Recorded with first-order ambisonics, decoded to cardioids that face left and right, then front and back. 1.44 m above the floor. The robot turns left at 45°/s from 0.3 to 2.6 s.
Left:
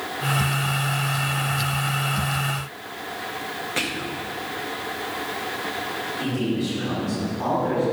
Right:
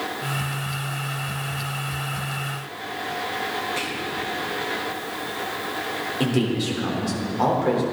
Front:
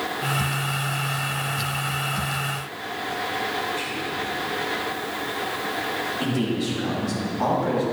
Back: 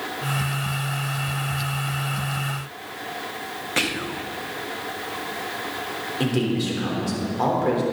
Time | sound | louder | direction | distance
3.8 | whispering | even, back 3 dB | 165° left | 0.9 m
6.2 | a man speaking | right 5 dB, back 1 dB | 130° right | 3.5 m